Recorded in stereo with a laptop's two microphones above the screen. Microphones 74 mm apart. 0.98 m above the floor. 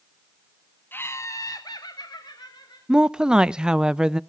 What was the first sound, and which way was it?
Laughter, 30° left (ahead or behind).